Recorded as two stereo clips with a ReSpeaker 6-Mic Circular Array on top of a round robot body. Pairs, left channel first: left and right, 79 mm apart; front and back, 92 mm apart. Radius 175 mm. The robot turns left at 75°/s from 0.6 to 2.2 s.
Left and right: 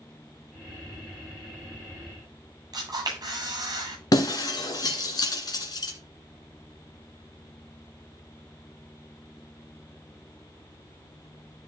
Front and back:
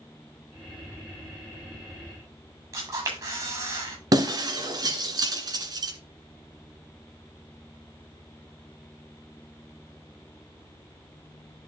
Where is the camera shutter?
130° right, 8.5 m.